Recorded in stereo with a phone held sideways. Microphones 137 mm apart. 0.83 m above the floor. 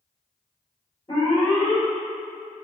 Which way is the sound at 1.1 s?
35° left (ahead or behind).